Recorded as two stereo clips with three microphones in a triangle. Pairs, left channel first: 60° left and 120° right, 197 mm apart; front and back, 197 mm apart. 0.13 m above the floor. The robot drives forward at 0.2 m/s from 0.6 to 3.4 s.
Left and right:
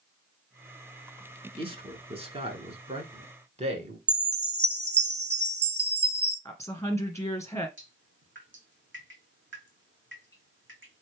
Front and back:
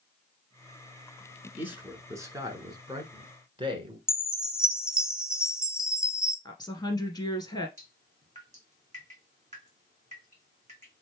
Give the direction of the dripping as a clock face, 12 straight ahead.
4 o'clock.